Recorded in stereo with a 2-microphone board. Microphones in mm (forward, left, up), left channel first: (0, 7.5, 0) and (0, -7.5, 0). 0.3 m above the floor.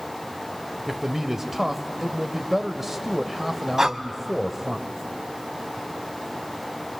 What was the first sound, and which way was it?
A man speaking, 20° right (ahead or behind).